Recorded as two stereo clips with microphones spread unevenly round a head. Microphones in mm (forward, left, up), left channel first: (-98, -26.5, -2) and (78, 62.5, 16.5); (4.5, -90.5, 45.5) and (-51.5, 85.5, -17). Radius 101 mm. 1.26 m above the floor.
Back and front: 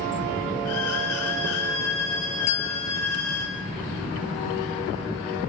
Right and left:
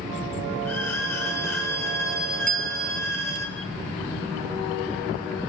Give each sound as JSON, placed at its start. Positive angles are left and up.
{"t": 0.7, "sound": "a violin", "azimuth_deg": -150, "distance_m": 5.5}
{"t": 2.5, "sound": "a bell", "azimuth_deg": 150, "distance_m": 1.4}